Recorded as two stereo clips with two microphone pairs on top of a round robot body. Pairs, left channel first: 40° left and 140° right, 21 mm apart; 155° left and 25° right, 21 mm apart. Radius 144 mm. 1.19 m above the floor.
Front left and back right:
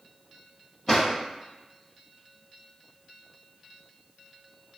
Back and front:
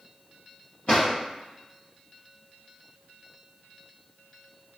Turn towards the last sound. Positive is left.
turn(degrees=125)